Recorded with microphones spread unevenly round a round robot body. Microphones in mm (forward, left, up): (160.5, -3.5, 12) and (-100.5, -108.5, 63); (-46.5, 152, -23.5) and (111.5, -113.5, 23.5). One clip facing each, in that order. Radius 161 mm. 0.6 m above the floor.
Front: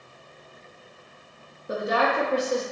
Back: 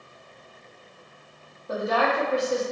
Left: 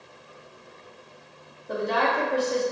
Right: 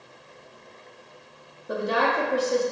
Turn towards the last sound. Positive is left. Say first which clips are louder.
# even, right 1 dB
turn(degrees=25)